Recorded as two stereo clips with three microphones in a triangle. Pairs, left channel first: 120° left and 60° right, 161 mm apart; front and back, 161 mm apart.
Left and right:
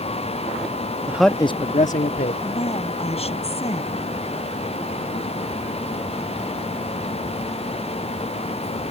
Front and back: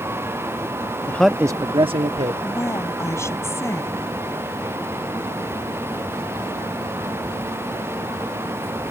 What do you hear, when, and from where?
1.1 s a man speaking: 35° right; by 2.3 s 130° left
2.4 s a woman speaking: 70° left